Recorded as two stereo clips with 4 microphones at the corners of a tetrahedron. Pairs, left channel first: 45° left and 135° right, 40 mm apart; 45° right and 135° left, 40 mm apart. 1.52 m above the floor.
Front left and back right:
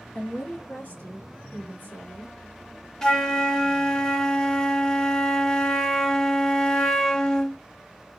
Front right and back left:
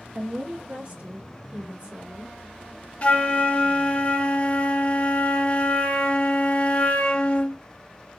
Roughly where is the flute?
Ahead right.